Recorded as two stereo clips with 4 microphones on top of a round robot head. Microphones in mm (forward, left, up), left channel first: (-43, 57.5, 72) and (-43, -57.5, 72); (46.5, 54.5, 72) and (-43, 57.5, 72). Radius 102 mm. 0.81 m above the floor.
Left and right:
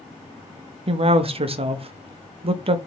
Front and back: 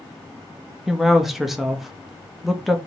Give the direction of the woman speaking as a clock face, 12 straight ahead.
3 o'clock.